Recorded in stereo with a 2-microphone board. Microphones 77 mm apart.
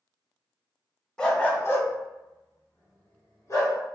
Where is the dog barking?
10° left (ahead or behind), 0.6 m; by 3.8 s 40° left (ahead or behind), 1.3 m.